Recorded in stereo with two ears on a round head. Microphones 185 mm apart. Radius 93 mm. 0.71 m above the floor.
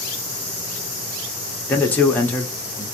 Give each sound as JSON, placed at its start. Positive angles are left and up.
{"t": 1.7, "sound": "a man speaking", "side_deg": 10, "distance_m": 0.8}